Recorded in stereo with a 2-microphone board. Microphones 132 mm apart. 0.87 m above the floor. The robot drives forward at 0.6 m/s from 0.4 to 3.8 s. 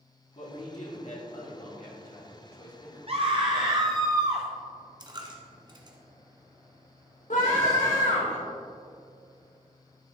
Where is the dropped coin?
35° right (ahead or behind), 1.1 m.